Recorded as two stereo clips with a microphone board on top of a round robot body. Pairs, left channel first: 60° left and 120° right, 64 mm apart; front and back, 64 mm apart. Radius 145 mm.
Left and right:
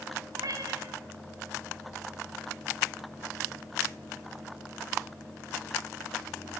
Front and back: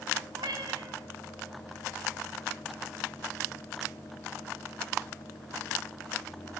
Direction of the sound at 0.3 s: 155° right.